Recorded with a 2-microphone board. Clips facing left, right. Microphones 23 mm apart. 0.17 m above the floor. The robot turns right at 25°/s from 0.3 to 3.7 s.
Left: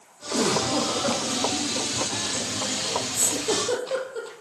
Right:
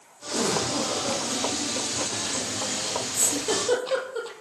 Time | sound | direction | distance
0.3 | a giggle | 45° left (ahead or behind) | 6.5 m
3.1 | a giggle | 5° right (ahead or behind) | 3.5 m